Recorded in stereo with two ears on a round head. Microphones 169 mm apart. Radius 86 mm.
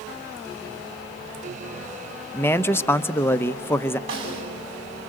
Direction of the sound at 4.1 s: 85° right.